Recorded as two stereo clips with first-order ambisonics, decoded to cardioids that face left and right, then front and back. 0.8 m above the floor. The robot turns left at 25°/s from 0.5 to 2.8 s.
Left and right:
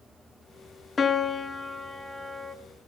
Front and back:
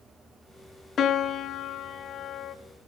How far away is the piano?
About 0.8 m.